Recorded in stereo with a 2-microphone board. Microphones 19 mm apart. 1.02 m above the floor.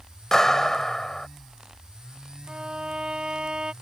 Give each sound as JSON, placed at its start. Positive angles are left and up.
{"t": 0.3, "sound": "a clap", "side_deg": 20}
{"t": 2.5, "sound": "a violin", "side_deg": -60}